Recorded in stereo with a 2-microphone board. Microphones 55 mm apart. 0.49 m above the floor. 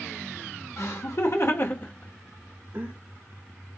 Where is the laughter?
60° left (ahead or behind), 1.7 m; by 2.9 s 50° right (ahead or behind), 1.0 m.